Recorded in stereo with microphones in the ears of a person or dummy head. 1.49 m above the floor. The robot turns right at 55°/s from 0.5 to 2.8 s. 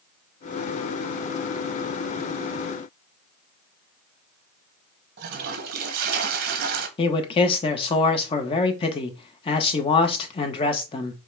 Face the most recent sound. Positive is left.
turn(degrees=35)  # may be behind; listen again after turning